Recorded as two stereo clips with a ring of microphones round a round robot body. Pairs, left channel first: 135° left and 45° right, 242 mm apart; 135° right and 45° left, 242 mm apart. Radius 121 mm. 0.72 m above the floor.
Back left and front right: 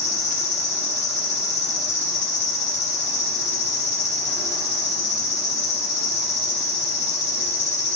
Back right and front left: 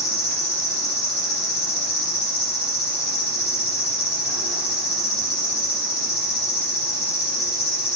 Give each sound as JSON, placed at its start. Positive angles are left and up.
{"t": 0.0, "sound": "an insect", "azimuth_deg": -170, "distance_m": 2.0}